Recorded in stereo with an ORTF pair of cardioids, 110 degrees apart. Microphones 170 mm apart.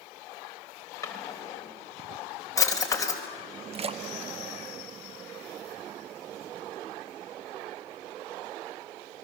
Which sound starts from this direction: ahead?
A drawer, at 1.0 s.